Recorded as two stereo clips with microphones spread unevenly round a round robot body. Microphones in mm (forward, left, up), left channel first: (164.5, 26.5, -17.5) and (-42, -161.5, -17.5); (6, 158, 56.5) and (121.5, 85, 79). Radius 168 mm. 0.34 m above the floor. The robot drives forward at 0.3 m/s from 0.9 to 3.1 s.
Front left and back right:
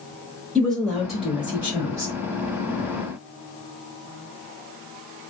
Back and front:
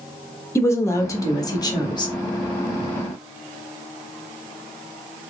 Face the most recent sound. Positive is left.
turn(degrees=155)